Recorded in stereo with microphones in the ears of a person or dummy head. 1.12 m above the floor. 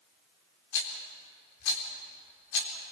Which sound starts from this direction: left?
A rattle, at 0.7 s.